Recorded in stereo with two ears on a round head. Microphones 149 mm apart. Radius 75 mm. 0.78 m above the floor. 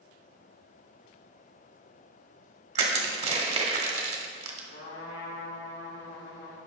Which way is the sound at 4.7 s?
75° left (ahead or behind).